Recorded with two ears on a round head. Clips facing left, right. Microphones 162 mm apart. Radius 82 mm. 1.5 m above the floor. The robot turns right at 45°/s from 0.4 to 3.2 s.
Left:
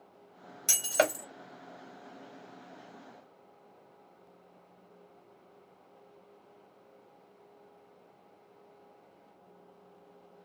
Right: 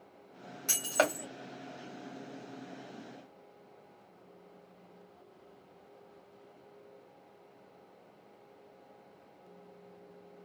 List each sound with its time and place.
0.7 s breaking glass: 35° left (ahead or behind), 2 m; by 1.2 s 15° left (ahead or behind), 2 m